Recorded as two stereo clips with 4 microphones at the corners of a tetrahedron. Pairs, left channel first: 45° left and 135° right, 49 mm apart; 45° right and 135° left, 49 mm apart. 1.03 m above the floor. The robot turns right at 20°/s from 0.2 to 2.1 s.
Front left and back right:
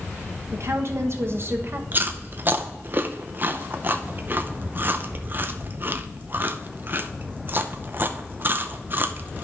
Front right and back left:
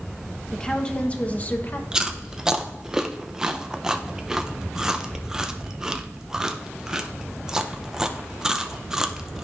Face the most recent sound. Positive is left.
turn(degrees=-155)